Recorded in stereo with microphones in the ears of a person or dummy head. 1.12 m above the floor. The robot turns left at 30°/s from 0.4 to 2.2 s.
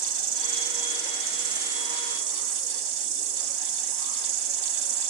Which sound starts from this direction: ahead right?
An insect, at 0.0 s.